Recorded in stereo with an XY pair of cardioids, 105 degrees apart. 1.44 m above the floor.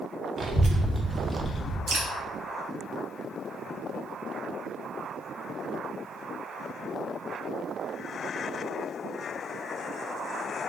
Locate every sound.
0.4 s a child speaking: 35° right, 1.0 m; by 1.8 s 25° left, 0.8 m
1.9 s dripping: 35° right, 1.2 m